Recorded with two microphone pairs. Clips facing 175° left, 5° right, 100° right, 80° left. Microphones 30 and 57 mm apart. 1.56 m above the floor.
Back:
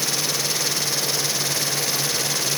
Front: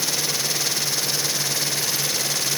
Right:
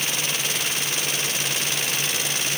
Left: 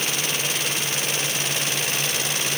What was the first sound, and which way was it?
Only background noise.